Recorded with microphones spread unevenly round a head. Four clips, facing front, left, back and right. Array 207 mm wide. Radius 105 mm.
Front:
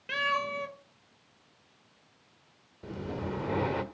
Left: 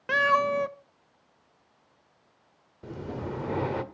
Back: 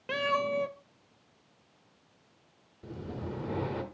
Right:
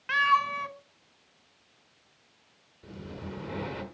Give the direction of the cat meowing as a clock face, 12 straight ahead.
8 o'clock.